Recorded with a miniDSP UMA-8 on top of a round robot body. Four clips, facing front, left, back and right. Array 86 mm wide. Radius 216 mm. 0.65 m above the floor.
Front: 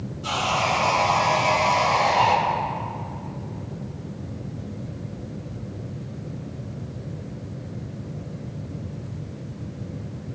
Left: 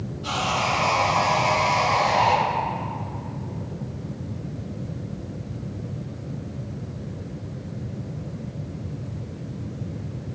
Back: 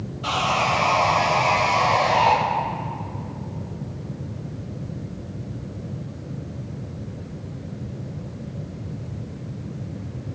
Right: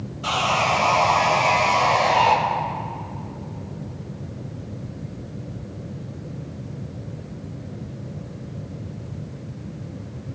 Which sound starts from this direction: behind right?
Sawing, at 0.2 s.